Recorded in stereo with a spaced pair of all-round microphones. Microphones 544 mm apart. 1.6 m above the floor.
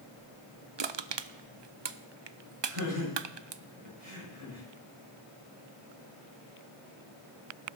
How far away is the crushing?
About 0.6 m.